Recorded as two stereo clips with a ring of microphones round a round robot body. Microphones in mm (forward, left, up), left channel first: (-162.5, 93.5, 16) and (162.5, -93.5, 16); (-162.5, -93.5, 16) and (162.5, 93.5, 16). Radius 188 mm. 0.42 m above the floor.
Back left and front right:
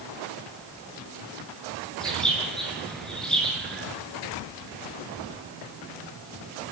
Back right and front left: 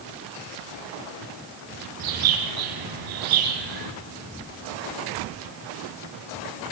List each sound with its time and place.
2.0 s a bird: 60° left, 7.5 m